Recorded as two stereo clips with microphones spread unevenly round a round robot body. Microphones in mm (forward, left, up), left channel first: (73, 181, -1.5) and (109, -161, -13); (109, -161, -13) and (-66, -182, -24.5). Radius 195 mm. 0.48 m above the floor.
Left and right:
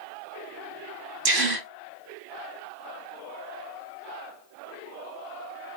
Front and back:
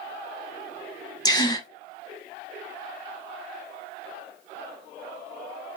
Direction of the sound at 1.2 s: 65° right.